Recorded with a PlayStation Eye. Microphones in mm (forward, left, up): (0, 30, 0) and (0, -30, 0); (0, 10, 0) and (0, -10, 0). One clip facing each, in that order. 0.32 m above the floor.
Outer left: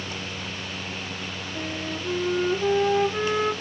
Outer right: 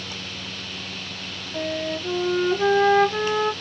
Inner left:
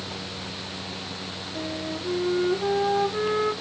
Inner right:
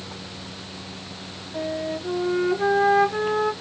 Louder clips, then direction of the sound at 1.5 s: Outer right 6 dB, inner right 5 dB; 50° right (ahead or behind).